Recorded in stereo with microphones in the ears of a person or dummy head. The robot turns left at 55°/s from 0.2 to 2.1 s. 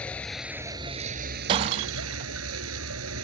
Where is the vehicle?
5° left; by 3.2 s 95° right.